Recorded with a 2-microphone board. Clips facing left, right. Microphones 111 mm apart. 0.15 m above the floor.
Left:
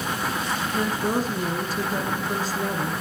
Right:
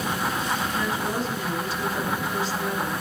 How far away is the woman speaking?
About 1.9 m.